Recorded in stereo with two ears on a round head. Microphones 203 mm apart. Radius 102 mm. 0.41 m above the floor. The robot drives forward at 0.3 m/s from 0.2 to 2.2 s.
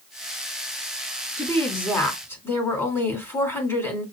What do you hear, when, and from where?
1.4 s a woman speaking: 15° left (ahead or behind), 2.5 m; by 4.0 s 10° left (ahead or behind), 2.5 m